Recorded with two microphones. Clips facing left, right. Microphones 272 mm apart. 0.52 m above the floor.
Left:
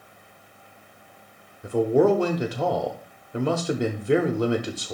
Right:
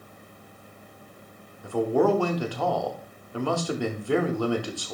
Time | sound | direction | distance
1.6 | a man speaking | 20° left (ahead or behind) | 0.8 m